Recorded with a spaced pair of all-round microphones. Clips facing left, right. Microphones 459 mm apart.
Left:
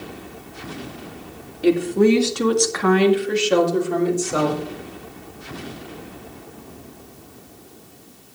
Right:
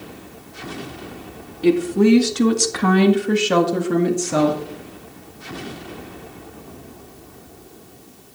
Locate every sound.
1.6 s a woman speaking: 15° right (ahead or behind), 2 m; by 4.6 s 75° right (ahead or behind), 2.5 m